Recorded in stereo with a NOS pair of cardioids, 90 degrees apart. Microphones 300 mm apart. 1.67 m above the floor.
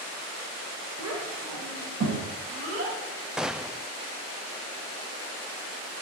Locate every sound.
1.0 s a child speaking: 55° right, 5 m; by 3.0 s 50° right, 7.5 m
3.4 s a gunshot: straight ahead, 0.5 m